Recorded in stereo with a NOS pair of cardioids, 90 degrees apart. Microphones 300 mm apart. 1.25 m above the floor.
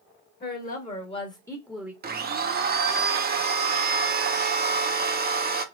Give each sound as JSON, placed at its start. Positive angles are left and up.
{"t": 0.4, "sound": "a woman speaking", "azimuth_deg": 35, "distance_m": 1.3}
{"t": 2.0, "sound": "a blender", "azimuth_deg": -35, "distance_m": 0.6}